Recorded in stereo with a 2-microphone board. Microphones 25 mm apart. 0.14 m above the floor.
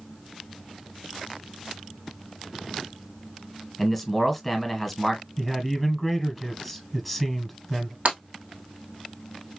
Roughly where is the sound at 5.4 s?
Centre.